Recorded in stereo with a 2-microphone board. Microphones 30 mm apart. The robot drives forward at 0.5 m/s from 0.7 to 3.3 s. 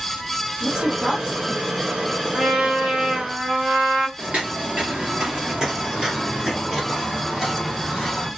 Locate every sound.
0.6 s a woman speaking: 25° right (ahead or behind), 1.7 m; by 2.2 s 45° right (ahead or behind), 1.1 m
2.3 s a trumpet: 40° right (ahead or behind), 1.1 m; by 4.1 s 50° right (ahead or behind), 0.9 m
4.2 s footsteps: 40° right (ahead or behind), 1.5 m; by 8.3 s centre (ahead or behind), 2.5 m